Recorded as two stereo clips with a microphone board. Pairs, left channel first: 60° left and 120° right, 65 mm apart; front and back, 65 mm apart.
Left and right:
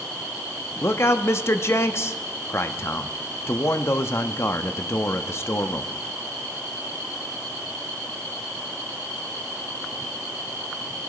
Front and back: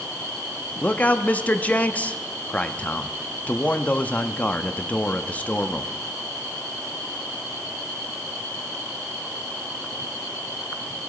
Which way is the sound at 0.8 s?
55° left.